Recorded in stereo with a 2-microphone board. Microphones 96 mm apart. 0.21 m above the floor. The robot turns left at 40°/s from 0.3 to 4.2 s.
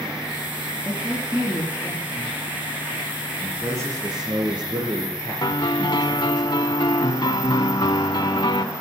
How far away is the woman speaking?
About 3.5 m.